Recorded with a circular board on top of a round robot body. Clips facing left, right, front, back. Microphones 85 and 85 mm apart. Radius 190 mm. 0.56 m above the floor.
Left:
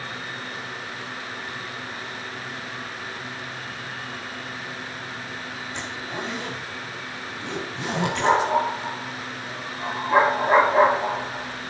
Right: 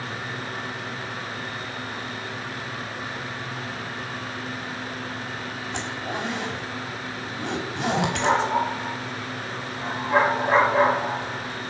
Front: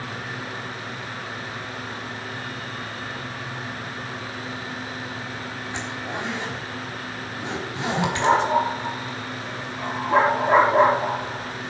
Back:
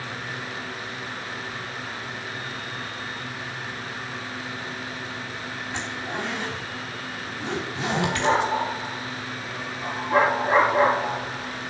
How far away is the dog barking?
About 6 m.